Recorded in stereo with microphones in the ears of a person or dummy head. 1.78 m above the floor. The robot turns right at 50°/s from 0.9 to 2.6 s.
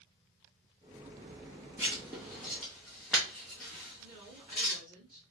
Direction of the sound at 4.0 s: 25° right (ahead or behind).